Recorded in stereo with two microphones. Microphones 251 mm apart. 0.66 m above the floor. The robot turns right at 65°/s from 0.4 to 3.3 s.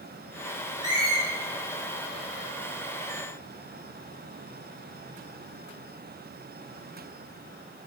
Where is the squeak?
15° left (ahead or behind), 3.5 m; by 1.2 s 15° right (ahead or behind), 3.5 m.